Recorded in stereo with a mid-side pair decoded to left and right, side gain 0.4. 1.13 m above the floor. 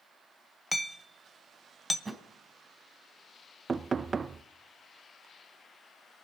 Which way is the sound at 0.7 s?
15° left.